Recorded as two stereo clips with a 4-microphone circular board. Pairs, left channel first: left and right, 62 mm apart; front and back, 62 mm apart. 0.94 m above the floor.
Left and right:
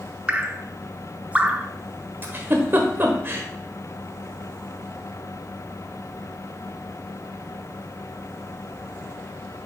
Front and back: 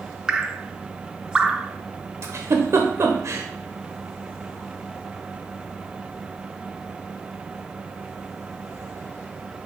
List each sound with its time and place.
0.3 s dripping: 120° right, 0.5 m
2.2 s a giggle: 140° right, 1.1 m